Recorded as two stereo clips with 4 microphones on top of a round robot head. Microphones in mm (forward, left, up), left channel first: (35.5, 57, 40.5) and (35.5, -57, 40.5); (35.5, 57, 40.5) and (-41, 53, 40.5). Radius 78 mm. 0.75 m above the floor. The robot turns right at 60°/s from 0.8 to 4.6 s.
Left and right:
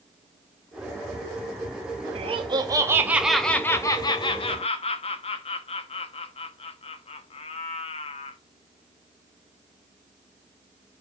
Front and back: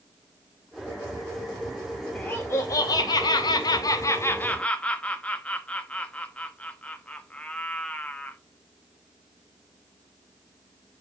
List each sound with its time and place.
2.1 s laughter: 70° right, 0.8 m; by 8.4 s 75° left, 0.8 m